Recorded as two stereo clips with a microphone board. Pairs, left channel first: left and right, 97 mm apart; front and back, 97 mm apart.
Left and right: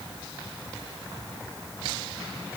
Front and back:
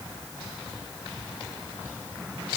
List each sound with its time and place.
Only background noise.